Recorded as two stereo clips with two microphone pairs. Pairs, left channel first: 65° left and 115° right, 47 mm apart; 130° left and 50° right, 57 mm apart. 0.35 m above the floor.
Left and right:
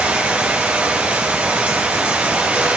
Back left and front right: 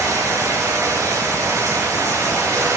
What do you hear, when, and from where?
0.0 s running water: 55° right, 6 m